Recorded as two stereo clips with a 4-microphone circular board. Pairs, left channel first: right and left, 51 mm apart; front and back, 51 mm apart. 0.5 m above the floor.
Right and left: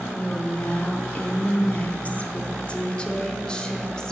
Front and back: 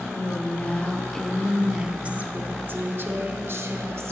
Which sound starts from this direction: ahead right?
A woman speaking, at 0.1 s.